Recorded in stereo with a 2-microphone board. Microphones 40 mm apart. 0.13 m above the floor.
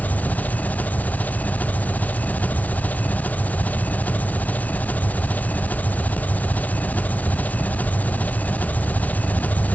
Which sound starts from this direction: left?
An engine running, at 0.0 s.